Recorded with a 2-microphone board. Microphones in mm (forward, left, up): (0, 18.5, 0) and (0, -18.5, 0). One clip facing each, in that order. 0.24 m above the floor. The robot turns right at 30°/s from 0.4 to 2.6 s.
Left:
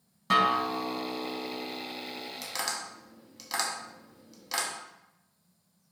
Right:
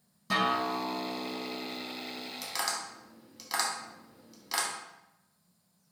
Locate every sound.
0.3 s a guitar: 115° left, 0.6 m; by 2.3 s 170° left, 0.6 m
2.4 s tapping: centre (ahead or behind), 0.6 m; by 4.7 s 5° right (ahead or behind), 0.6 m